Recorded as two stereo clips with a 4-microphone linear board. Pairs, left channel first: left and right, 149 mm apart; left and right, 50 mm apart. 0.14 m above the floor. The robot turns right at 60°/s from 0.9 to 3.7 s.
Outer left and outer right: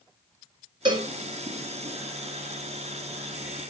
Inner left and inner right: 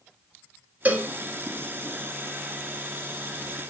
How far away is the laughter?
I don't hear laughter.